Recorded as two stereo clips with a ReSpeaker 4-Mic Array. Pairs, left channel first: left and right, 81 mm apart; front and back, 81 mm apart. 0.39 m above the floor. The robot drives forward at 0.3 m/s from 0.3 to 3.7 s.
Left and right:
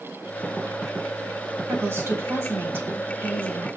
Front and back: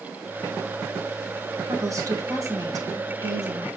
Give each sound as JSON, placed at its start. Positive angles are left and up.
{"t": 1.7, "sound": "a woman speaking", "azimuth_deg": -140, "distance_m": 2.0}